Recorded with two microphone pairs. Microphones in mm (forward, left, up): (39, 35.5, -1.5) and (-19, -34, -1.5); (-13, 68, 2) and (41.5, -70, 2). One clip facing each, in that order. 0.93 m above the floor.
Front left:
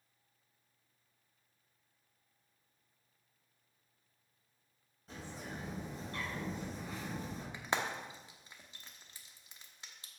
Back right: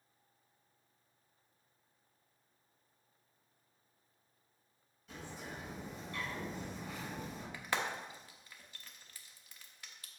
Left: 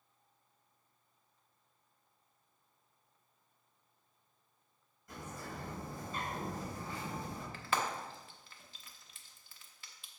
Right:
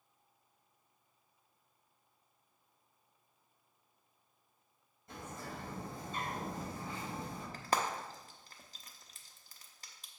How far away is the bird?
About 4 m.